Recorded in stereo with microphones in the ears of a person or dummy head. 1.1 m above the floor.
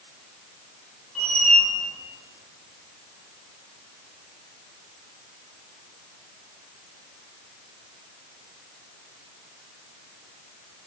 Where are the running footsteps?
No running footsteps in this recording.